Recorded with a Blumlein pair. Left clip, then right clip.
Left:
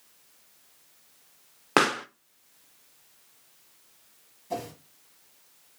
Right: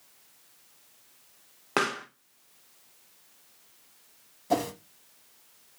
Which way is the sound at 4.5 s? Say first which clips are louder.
Right 7 dB; 60° right.